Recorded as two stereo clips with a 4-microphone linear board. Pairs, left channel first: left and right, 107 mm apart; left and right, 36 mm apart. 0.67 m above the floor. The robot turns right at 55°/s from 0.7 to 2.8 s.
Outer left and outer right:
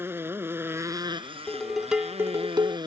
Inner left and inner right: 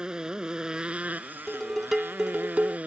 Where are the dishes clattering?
165° left; by 2.8 s 125° right.